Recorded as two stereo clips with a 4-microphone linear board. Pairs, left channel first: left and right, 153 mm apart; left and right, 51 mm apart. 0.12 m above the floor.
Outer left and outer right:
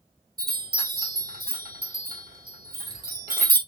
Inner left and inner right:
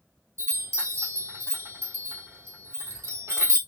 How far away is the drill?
I don't hear a drill.